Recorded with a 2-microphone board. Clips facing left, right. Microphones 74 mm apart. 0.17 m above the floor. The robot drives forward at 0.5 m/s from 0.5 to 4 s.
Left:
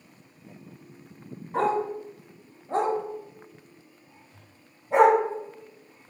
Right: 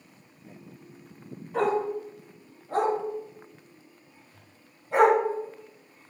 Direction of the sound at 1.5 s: 35° left (ahead or behind).